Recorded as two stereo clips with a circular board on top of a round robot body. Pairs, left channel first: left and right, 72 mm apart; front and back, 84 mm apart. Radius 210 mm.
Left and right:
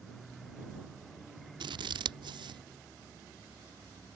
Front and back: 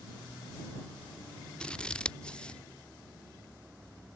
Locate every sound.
1.6 s scissors: 80° right